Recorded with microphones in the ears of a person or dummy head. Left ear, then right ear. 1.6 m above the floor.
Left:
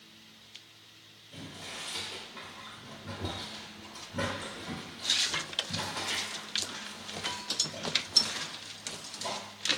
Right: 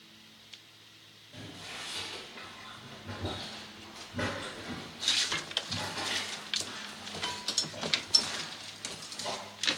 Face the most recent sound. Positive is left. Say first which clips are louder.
# left 1 dB
turn(degrees=80)